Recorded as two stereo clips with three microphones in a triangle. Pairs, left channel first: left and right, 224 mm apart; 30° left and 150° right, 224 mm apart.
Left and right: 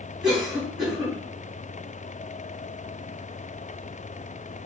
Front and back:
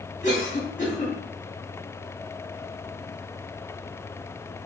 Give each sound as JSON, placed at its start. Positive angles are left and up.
{"t": 0.2, "sound": "a cough", "azimuth_deg": -20, "distance_m": 2.0}